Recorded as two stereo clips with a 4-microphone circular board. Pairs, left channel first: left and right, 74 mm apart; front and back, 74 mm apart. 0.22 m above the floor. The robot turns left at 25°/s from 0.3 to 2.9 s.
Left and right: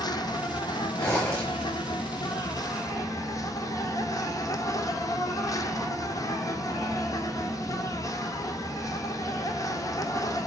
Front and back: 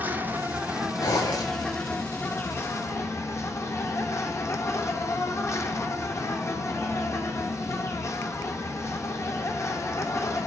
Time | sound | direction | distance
0.0 | an insect | 115° left | 1.0 m
1.0 | a zipper | 40° left | 4 m